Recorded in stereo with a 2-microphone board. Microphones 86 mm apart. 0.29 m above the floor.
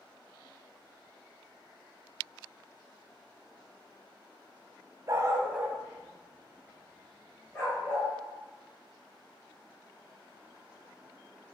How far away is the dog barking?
About 0.6 m.